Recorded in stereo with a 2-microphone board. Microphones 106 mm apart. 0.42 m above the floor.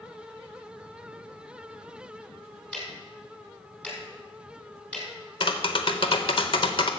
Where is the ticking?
10° left (ahead or behind), 3.5 m.